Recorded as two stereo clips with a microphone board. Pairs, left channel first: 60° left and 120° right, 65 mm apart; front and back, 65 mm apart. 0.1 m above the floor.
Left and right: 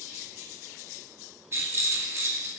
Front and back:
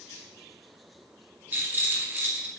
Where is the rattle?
135° right, 2 m.